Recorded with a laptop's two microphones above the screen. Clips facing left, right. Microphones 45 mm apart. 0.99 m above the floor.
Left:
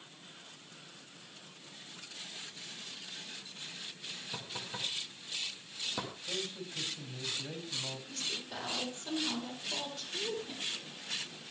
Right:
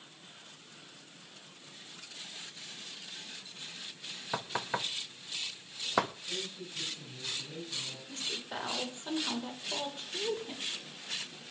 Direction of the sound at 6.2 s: 85° left.